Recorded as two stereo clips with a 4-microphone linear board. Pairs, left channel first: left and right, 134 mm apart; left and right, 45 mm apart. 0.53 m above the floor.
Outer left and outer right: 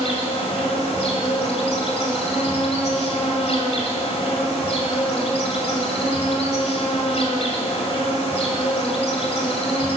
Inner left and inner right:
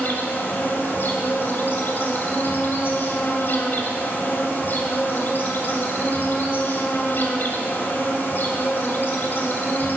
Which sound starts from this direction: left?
An insect, at 0.0 s.